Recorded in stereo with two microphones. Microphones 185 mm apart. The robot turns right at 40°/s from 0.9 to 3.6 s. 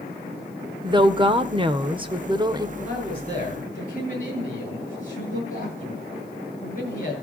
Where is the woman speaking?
25° right (ahead or behind), 0.9 m; by 2.7 s 20° right (ahead or behind), 0.9 m.